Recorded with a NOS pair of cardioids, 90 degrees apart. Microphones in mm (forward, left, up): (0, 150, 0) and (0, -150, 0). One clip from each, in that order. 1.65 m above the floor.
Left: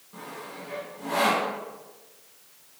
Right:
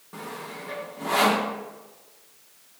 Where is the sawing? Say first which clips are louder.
Right 3 dB; 55° right, 1.5 m.